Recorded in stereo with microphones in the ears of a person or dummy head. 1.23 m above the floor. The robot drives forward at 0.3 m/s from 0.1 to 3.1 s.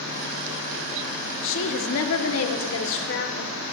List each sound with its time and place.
1.4 s a woman speaking: 65° left (ahead or behind), 0.7 m; by 3.5 s 60° left (ahead or behind), 0.8 m